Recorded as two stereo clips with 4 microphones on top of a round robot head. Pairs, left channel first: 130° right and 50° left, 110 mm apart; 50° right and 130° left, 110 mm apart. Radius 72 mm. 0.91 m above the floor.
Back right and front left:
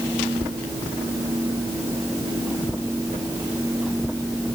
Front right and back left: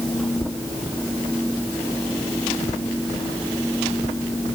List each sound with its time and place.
Only background noise.